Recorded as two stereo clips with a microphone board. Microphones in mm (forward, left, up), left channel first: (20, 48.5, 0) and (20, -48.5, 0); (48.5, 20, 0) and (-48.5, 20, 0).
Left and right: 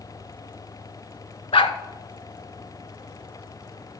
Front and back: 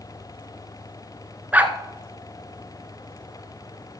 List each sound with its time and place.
1.5 s a dog barking: 105° left, 0.8 m